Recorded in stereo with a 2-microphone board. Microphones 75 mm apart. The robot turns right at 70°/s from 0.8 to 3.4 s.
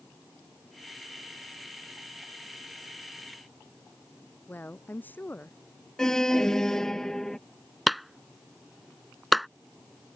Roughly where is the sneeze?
I don't hear a sneeze.